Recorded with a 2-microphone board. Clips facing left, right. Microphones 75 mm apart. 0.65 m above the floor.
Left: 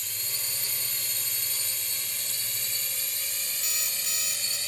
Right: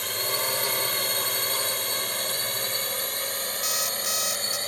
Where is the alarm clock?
70° right (ahead or behind).